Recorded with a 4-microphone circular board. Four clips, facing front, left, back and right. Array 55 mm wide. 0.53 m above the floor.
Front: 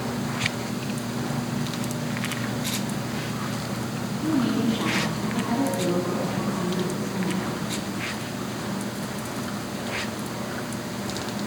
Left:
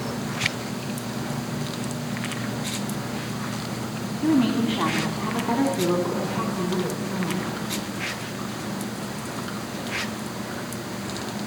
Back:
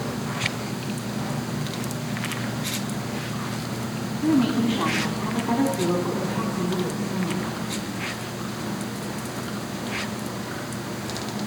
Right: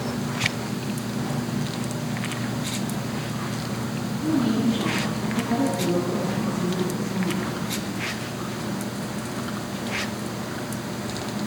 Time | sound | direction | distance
4.2 | a woman speaking | 110° left | 3.5 m